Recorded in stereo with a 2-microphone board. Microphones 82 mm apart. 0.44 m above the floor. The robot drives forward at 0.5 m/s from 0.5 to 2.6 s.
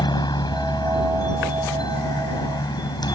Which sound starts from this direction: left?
A helicopter, at 0.0 s.